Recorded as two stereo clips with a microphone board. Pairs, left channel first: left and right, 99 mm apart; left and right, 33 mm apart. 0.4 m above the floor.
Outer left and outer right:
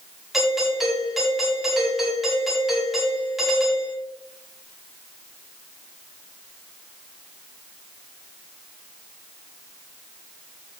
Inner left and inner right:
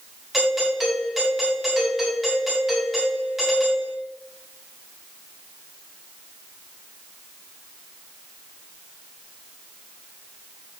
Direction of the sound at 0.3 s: Centre (ahead or behind).